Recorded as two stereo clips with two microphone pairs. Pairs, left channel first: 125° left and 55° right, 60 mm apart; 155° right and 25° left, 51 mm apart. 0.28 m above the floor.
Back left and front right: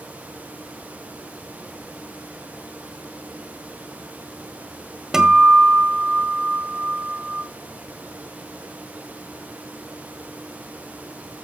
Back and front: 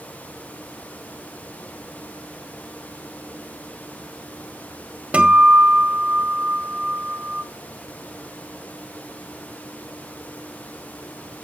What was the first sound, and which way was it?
A guitar, 20° left.